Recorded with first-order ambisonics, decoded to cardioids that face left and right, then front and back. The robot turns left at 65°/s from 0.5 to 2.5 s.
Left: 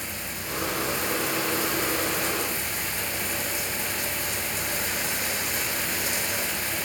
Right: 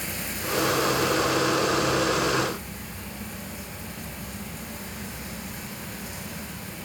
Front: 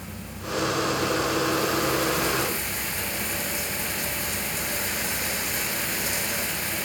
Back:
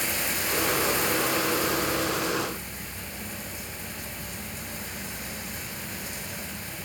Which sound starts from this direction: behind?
Running water, at 0.0 s.